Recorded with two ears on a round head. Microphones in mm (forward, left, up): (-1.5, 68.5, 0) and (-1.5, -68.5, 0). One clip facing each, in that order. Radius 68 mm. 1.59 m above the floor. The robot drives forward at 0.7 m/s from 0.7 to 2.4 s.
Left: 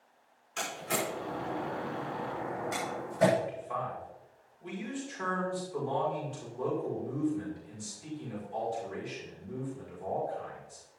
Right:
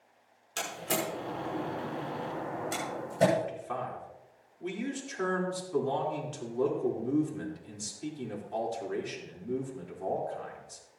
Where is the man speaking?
75° right (ahead or behind), 4 m.